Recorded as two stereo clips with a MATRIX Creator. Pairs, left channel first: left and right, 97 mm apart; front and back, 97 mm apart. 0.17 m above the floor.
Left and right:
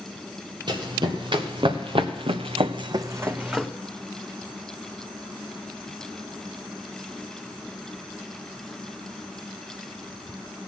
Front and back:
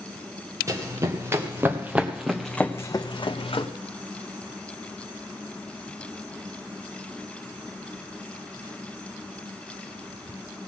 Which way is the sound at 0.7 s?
125° right.